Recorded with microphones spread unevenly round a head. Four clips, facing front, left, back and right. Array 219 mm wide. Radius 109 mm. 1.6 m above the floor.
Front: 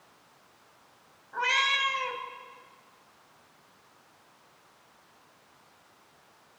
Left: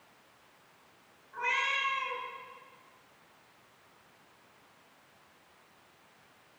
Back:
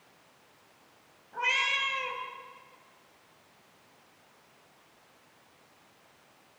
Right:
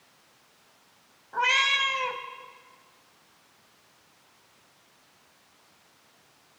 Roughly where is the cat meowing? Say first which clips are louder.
Right 7 dB, front 3 dB; right.